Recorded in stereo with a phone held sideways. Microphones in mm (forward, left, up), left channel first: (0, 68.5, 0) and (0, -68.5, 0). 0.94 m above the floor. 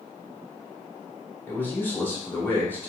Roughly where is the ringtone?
I don't hear a ringtone.